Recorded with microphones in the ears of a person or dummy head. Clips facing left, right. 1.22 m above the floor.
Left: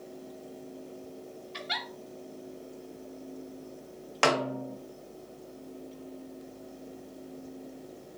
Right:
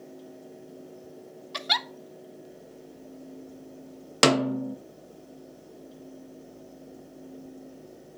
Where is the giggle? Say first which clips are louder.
Right 6 dB; 60° right (ahead or behind), 0.5 m.